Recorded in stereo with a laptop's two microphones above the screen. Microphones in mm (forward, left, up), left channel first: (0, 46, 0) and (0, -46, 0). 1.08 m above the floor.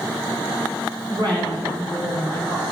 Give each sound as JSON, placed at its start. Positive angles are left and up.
{"t": 1.1, "sound": "a woman speaking", "side_deg": -55, "distance_m": 3.0}